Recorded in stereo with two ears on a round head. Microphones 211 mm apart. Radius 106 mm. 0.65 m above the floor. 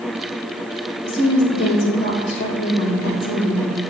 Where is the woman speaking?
45° left (ahead or behind), 3 m.